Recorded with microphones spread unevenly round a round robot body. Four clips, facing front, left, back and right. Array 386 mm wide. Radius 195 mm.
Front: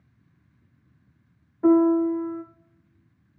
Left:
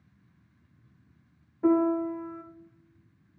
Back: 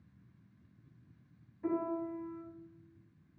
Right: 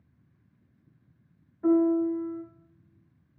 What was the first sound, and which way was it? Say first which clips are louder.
A piano: right 1 dB, front 18 dB; 35° left.